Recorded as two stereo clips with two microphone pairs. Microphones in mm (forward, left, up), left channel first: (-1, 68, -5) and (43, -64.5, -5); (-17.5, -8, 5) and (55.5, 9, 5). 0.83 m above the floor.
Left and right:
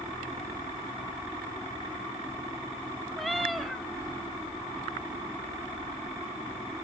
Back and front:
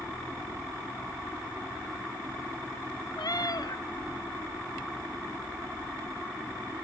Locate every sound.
3.2 s a cat meowing: 165° right, 1.1 m